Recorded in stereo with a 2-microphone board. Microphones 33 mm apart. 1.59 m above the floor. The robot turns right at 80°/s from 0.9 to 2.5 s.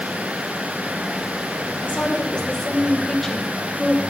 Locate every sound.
1.8 s a woman speaking: 110° left, 1.7 m; by 4.0 s 165° left, 1.7 m